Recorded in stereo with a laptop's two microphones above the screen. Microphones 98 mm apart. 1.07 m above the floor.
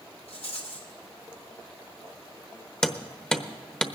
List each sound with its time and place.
0.3 s a rattle: 80° left, 2.5 m
2.8 s hammering: 10° left (ahead or behind), 1.0 m